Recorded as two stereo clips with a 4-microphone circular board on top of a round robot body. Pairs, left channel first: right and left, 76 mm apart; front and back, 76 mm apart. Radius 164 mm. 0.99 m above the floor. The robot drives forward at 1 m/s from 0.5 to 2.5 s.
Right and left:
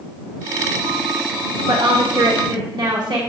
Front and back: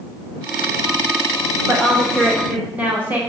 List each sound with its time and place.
1.7 s a woman speaking: 90° left, 2.0 m; by 3.2 s 110° left, 2 m